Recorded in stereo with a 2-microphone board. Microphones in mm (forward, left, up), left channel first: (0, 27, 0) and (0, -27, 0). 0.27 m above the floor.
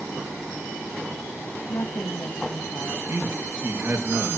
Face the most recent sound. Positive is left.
turn(degrees=-45)  # may be behind; listen again after turning